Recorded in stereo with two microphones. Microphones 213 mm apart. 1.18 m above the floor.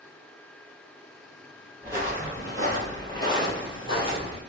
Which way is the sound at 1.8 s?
10° left (ahead or behind).